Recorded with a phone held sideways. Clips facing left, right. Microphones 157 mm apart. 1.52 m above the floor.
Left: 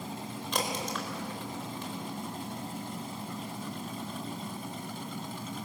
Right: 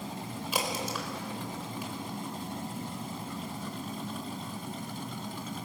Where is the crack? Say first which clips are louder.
Even; 5° right (ahead or behind), 4 m.